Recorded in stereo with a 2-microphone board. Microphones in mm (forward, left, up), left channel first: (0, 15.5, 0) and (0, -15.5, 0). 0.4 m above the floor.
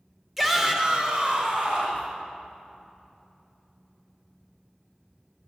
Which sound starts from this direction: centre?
A shout, at 0.4 s.